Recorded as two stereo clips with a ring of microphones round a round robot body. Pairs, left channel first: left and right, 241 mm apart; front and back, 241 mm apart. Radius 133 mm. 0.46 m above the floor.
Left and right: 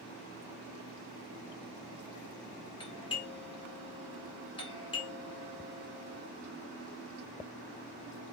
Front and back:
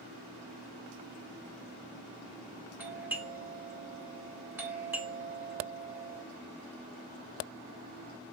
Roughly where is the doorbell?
Left.